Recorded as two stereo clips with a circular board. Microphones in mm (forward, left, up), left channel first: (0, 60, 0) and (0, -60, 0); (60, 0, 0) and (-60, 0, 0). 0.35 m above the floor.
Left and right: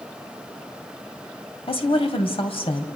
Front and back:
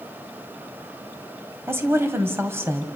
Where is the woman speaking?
115° left, 1.9 m.